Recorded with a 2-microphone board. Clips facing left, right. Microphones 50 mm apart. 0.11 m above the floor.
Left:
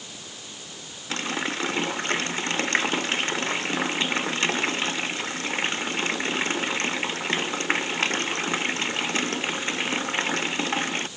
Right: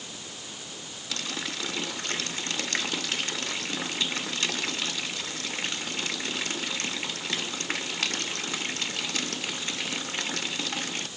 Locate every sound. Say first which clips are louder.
1.1 s a running tap: left 7 dB; 35° left (ahead or behind)